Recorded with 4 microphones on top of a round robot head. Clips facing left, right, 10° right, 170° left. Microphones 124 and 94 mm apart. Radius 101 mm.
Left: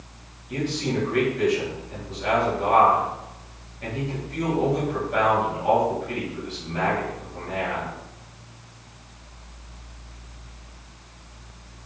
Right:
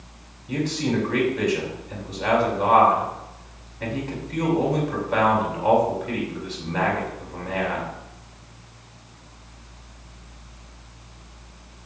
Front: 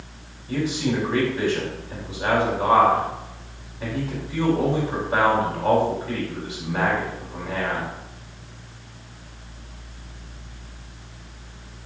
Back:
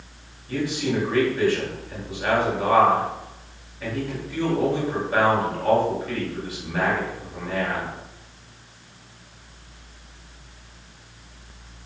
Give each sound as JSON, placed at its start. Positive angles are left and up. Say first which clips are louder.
{"t": 0.5, "sound": "a man speaking", "louder": "right 2 dB, front 1 dB", "azimuth_deg": -85, "distance_m": 5.0}